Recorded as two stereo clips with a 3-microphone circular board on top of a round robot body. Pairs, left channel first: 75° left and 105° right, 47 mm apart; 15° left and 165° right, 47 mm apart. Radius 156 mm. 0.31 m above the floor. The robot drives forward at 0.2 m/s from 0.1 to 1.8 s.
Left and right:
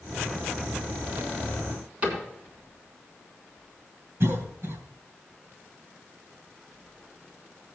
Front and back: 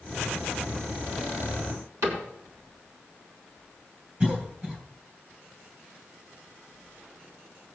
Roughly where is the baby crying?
No baby crying in this recording.